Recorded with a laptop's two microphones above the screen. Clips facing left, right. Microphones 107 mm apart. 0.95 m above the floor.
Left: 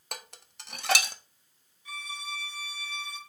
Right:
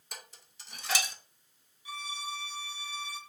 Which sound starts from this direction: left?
Dishes clattering, at 0.1 s.